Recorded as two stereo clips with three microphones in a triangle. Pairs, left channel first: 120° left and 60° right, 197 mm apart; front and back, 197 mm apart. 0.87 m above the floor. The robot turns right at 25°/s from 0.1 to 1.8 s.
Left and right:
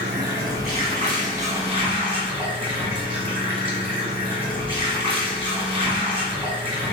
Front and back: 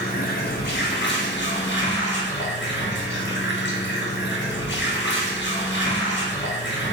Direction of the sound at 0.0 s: 40° right.